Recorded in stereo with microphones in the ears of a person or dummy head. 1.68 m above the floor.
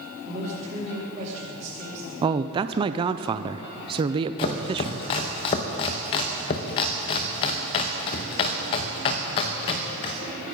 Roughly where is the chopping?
Left.